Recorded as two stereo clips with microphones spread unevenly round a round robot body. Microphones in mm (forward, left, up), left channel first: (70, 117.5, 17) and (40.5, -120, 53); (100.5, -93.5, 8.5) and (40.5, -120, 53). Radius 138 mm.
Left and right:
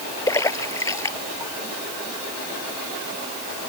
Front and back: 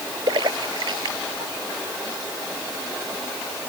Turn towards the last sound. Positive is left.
turn(degrees=165)